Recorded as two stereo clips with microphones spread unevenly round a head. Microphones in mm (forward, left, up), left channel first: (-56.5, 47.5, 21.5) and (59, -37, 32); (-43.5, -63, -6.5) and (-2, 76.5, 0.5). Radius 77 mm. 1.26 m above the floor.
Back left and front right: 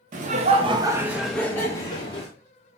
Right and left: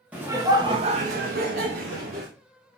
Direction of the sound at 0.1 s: 10° right.